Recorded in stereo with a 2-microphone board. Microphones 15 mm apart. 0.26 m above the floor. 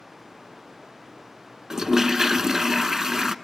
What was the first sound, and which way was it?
A toilet flushing, 35° right (ahead or behind).